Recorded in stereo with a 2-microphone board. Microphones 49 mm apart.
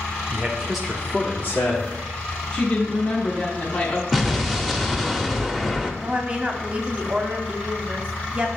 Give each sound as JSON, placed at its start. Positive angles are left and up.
{"t": 0.3, "sound": "a man speaking", "side_deg": -25, "distance_m": 1.2}
{"t": 2.5, "sound": "a woman speaking", "side_deg": 25, "distance_m": 1.3}
{"t": 4.1, "sound": "an explosion", "side_deg": 0, "distance_m": 0.6}
{"t": 6.0, "sound": "a woman speaking", "side_deg": -25, "distance_m": 0.8}